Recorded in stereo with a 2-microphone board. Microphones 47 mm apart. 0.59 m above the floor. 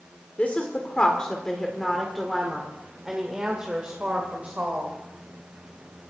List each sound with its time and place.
0.4 s a woman speaking: 30° left (ahead or behind), 1.8 m; by 4.9 s 35° right (ahead or behind), 2.5 m